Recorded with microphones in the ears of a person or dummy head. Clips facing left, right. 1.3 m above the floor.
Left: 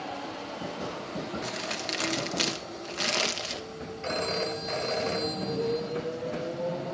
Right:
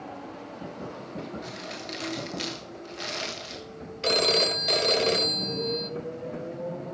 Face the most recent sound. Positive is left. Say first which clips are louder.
# right 5 dB
turn(degrees=-55)  # may be behind; listen again after turning